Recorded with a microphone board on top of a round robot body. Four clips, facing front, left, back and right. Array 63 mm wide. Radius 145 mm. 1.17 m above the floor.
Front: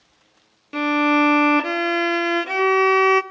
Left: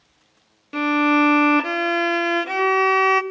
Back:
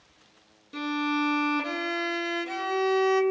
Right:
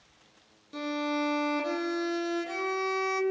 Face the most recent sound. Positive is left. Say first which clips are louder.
# left 13 dB, front 10 dB
turn(degrees=50)